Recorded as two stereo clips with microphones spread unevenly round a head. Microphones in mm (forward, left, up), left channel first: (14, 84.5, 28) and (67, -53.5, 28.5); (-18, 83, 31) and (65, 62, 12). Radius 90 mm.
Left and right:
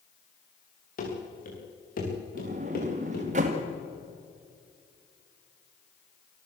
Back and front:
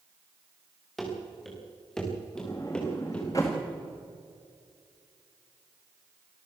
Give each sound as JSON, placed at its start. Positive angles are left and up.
{"t": 1.0, "sound": "running footsteps", "azimuth_deg": 80, "distance_m": 7.0}
{"t": 2.4, "sound": "a sliding door", "azimuth_deg": -120, "distance_m": 1.7}